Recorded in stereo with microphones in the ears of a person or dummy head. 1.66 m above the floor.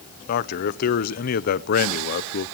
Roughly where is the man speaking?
Left.